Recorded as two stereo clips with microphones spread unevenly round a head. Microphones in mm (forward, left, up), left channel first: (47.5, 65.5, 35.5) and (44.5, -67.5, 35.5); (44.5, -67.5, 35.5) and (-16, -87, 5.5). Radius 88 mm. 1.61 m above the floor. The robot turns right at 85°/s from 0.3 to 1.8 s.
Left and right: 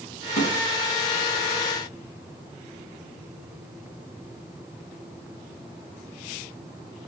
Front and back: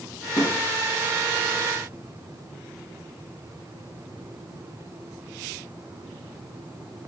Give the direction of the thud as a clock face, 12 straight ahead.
10 o'clock.